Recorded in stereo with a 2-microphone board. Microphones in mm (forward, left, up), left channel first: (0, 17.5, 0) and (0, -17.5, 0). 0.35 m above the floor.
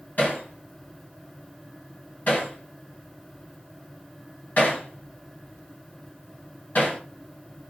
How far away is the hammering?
About 1.9 m.